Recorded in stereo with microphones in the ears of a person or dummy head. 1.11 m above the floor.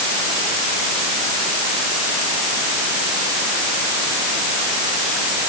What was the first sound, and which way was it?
Only background noise.